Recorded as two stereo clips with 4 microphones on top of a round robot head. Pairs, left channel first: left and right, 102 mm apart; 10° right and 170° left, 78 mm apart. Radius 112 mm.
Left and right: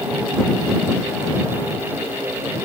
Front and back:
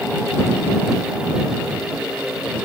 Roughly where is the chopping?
I don't hear chopping.